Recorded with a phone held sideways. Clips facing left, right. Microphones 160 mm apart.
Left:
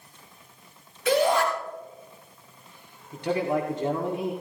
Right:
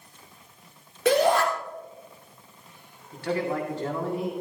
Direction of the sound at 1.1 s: 70° right (ahead or behind).